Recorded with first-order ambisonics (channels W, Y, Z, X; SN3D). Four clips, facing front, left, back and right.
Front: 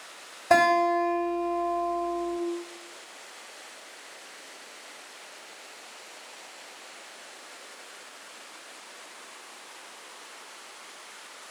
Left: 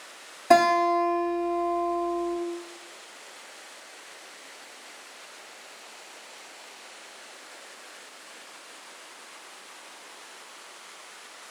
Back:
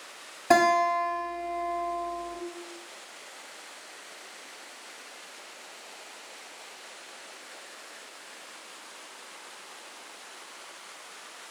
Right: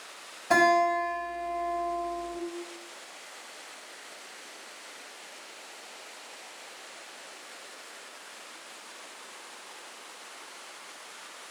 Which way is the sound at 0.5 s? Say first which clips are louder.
Left 3 dB, front 1 dB; 135° left.